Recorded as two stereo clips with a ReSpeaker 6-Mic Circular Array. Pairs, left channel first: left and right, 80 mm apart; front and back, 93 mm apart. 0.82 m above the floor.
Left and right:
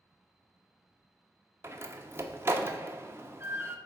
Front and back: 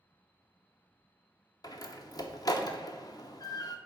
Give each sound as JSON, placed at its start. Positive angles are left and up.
{"t": 1.6, "sound": "a door slam", "azimuth_deg": -35, "distance_m": 0.8}